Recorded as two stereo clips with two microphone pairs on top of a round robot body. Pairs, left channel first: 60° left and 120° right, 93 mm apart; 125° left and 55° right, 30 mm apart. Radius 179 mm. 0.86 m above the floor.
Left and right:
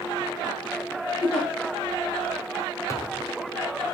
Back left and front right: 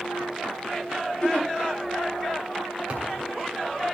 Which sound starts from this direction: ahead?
A thud, at 2.9 s.